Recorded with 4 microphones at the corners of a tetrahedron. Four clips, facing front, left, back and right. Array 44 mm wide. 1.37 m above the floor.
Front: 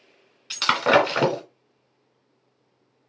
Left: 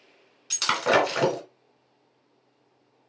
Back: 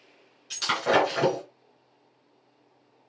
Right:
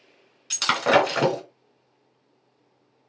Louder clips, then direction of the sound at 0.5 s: Right 3 dB, front 5 dB; 10° right.